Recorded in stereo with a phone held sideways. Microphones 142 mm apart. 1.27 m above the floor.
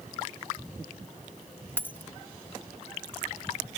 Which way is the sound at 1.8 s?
15° left (ahead or behind).